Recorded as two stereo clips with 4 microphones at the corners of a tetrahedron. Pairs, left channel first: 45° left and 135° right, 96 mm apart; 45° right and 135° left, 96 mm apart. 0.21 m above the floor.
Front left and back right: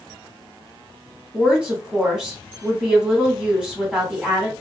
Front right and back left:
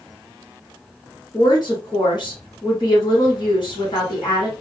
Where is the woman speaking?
55° right, 1.8 m.